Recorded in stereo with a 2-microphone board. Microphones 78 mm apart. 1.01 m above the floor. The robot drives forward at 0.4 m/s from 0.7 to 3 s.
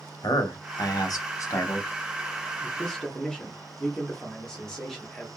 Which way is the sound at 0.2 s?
60° left (ahead or behind).